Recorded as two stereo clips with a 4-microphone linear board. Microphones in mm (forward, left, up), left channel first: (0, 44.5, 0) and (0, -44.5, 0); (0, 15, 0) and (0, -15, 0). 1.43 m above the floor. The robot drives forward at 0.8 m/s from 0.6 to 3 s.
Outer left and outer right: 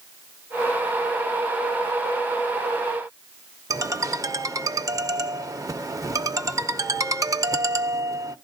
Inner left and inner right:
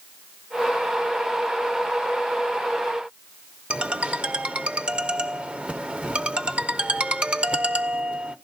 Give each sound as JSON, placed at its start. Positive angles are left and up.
{"t": 3.7, "sound": "a ringtone", "side_deg": -35, "distance_m": 0.6}